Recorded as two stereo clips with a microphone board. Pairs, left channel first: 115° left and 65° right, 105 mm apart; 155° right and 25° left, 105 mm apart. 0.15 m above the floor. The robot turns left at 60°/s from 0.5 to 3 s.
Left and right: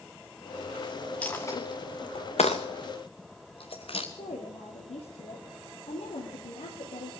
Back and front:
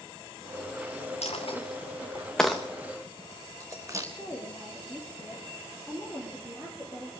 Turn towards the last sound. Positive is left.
turn(degrees=100)